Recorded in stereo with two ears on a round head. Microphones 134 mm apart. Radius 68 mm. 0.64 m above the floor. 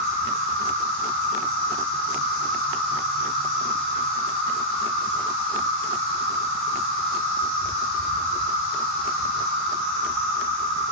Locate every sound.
0.0 s an insect: centre (ahead or behind), 2.0 m